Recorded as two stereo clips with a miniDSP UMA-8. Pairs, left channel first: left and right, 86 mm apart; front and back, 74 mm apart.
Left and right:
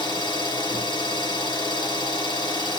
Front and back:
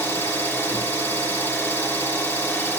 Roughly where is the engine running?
Ahead left.